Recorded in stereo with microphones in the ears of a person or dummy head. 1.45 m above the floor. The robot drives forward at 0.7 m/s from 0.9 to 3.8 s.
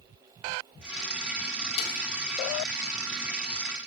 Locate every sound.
1.8 s a snare drum: 70° left (ahead or behind), 1.5 m